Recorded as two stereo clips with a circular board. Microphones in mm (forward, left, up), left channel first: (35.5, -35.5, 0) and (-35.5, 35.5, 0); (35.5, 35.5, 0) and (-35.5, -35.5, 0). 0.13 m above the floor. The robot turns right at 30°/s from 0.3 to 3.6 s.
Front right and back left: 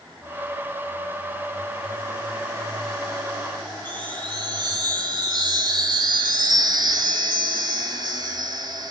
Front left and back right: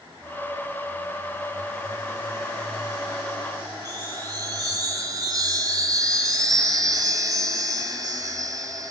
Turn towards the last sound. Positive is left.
turn(degrees=175)